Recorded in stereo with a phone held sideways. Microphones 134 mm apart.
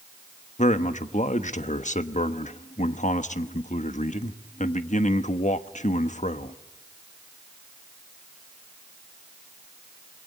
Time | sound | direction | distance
0.6 | a man speaking | 65° left (ahead or behind) | 1.1 m